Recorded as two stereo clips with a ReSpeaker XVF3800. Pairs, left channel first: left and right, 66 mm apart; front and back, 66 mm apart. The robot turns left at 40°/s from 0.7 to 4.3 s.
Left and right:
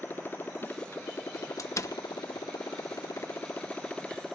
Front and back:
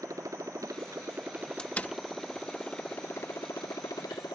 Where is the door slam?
70° left; by 1.9 s 55° left.